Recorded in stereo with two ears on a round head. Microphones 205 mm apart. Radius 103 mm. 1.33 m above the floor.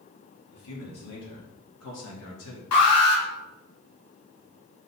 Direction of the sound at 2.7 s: 85° left.